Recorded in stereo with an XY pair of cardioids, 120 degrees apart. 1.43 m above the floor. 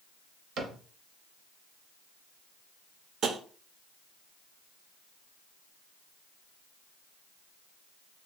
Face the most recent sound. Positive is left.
turn(degrees=-55)